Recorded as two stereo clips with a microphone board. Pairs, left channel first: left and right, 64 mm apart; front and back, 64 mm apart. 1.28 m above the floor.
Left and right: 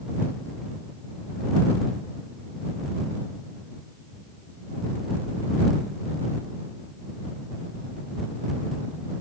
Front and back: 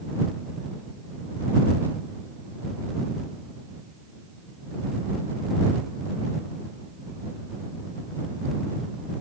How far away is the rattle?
I don't hear a rattle.